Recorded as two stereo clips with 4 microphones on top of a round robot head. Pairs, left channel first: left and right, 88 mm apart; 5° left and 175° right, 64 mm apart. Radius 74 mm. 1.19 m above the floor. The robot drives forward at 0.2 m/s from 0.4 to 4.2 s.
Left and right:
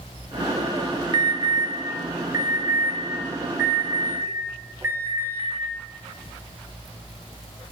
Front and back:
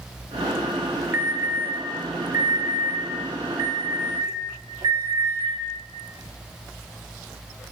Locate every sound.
1.1 s an alarm: 125° right, 0.6 m; by 5.5 s 155° right, 1.0 m